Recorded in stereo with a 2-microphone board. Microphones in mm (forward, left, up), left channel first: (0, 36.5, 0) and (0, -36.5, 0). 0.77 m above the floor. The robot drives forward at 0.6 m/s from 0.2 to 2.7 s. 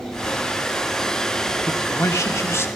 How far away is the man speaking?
About 1.8 m.